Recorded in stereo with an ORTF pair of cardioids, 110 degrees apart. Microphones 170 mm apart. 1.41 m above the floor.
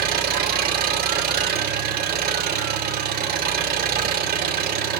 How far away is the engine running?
About 3 m.